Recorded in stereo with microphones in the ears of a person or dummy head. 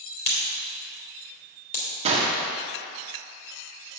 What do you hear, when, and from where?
0.2 s a crack: 75° left (ahead or behind), 3 m
2.0 s a gunshot: 30° right (ahead or behind), 1.0 m